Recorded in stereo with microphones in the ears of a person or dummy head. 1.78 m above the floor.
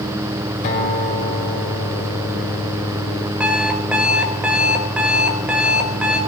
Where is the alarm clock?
5° right (ahead or behind), 4.5 m.